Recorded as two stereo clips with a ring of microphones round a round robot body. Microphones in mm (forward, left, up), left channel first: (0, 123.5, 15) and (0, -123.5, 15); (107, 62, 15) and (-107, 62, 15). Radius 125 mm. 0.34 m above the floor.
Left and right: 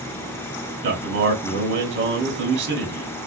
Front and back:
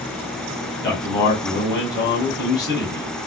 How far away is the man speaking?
About 2 m.